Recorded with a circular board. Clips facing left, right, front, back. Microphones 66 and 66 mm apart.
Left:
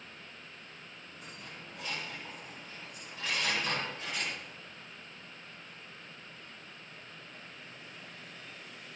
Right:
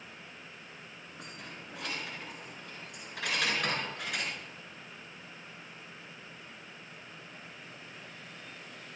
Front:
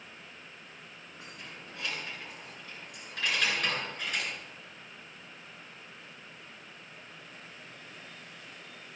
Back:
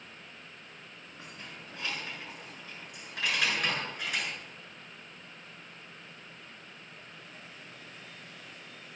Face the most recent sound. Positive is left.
turn(degrees=-100)